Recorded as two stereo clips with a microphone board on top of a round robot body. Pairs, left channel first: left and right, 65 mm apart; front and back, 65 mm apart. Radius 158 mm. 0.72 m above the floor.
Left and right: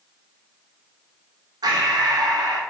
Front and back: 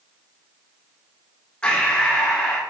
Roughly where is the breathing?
Right.